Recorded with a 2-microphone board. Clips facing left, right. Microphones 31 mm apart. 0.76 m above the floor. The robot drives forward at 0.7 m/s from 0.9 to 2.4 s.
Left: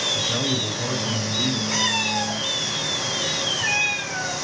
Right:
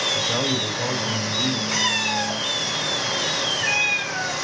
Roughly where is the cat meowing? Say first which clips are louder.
Right 1 dB; centre.